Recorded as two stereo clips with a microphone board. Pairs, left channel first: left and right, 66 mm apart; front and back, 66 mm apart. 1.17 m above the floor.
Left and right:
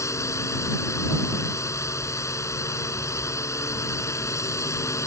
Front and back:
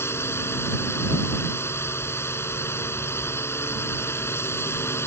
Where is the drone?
50° left.